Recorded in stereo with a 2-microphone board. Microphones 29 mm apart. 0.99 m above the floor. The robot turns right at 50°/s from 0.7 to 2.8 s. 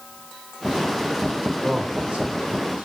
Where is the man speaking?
10° right (ahead or behind), 3 m; by 2.9 s 65° right (ahead or behind), 3 m.